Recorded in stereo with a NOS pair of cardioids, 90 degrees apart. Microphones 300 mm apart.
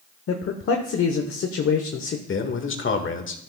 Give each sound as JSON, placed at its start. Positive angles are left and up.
{"t": 0.3, "sound": "a man speaking", "azimuth_deg": 45, "distance_m": 1.0}
{"t": 2.3, "sound": "a man speaking", "azimuth_deg": 45, "distance_m": 1.6}